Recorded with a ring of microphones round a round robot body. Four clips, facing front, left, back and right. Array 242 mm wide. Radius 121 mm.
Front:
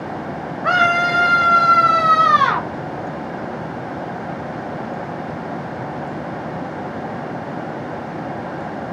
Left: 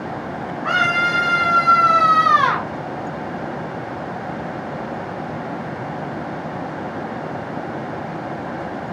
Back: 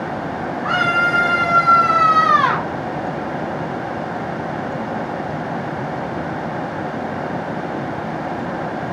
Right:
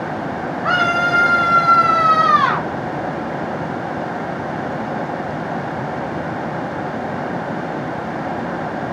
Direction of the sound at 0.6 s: 10° right.